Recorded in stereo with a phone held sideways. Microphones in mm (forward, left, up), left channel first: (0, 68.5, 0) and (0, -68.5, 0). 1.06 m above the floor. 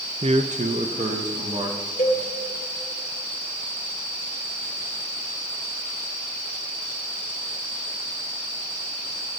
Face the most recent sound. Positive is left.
turn(degrees=60)  # may be behind; listen again after turning